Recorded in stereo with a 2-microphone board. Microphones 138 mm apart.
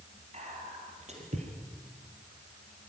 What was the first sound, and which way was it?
Whispering, 50° right (ahead or behind).